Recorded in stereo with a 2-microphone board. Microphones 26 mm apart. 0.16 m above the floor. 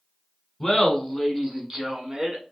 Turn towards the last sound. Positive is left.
turn(degrees=-30)  # may be behind; listen again after turning